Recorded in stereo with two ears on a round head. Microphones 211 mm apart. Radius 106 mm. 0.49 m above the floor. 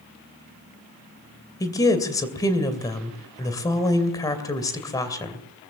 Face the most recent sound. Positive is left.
turn(degrees=15)  # may be behind; listen again after turning